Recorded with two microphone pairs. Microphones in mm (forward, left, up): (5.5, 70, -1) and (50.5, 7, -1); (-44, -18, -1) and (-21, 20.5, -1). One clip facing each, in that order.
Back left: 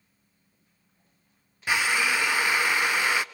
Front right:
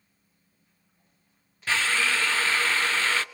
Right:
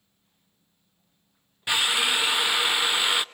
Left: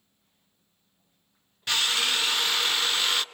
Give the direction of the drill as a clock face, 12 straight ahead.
6 o'clock.